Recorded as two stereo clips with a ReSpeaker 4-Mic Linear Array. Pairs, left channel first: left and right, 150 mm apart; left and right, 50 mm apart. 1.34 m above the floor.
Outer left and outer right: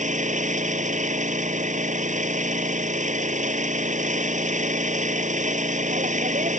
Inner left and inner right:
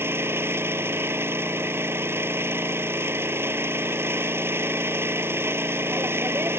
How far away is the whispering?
I don't hear whispering.